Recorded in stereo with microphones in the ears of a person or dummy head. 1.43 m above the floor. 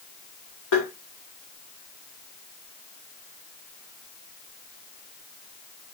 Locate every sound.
0.7 s tapping: 70° left (ahead or behind), 2.5 m